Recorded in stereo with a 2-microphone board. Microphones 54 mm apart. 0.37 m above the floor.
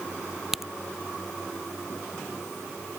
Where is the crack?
5° right (ahead or behind).